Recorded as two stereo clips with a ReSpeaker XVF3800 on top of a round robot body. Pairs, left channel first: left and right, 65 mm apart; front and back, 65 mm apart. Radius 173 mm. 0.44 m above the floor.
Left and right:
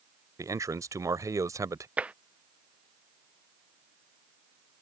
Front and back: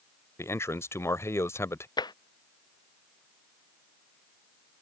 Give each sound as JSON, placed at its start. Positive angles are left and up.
{"t": 0.4, "sound": "a man speaking", "azimuth_deg": -50}
{"t": 2.0, "sound": "tapping", "azimuth_deg": -15}